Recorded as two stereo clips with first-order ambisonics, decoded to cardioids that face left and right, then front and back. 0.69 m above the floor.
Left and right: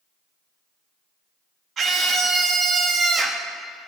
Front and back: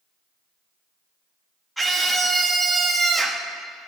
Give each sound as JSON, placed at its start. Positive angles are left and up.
{"t": 1.8, "sound": "a scream", "azimuth_deg": -100, "distance_m": 1.2}